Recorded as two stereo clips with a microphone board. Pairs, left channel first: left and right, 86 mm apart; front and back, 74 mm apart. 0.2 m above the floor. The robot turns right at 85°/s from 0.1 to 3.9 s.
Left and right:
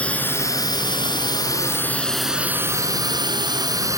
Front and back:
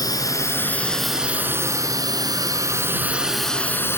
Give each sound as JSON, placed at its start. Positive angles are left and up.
{"t": 0.0, "sound": "a drone", "azimuth_deg": 15}